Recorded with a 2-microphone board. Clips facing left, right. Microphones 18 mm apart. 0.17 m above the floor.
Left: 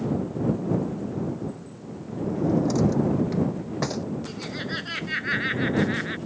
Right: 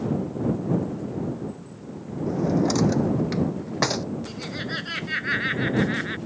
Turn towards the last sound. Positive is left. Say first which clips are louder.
# even
turn(degrees=0)  # may be behind; listen again after turning